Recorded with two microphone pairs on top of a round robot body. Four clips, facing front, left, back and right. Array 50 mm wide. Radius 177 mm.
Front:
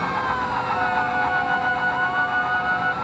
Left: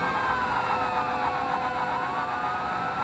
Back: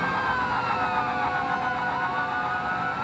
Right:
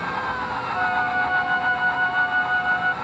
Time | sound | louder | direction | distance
0.7 | a flute | right 4 dB, front 4 dB | 60° right | ?